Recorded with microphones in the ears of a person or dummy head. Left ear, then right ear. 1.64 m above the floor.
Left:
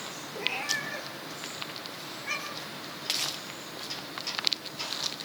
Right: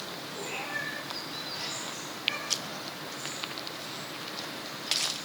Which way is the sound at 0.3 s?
65° left (ahead or behind).